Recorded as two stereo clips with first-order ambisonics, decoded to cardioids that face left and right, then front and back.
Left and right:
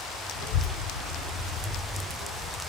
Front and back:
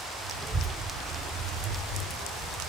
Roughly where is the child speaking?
Left.